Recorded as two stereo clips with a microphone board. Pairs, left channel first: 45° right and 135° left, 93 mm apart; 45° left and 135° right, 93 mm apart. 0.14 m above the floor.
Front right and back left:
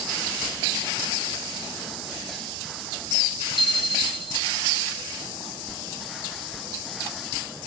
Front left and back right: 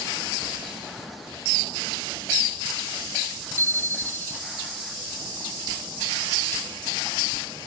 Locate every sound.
3.6 s a bicycle bell: 110° left